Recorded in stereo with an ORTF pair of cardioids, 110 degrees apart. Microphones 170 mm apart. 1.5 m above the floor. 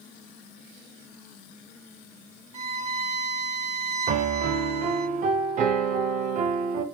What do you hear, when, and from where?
2.5 s a violin: 40° right, 0.9 m
4.1 s a piano: 50° right, 0.7 m